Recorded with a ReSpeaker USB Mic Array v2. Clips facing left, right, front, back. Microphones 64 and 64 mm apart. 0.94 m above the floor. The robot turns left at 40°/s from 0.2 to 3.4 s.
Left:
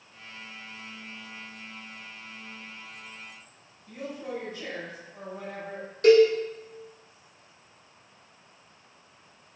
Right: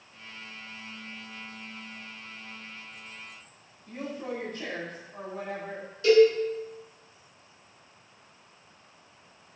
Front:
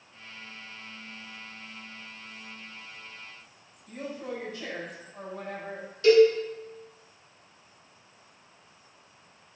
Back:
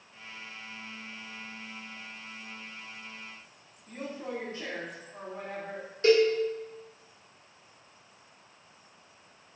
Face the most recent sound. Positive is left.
turn(degrees=125)